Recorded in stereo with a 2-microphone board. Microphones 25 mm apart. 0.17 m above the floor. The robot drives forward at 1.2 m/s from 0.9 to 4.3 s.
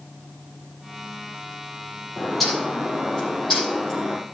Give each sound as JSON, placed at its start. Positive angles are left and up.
{"t": 2.2, "sound": "a bird", "side_deg": 5, "distance_m": 5.5}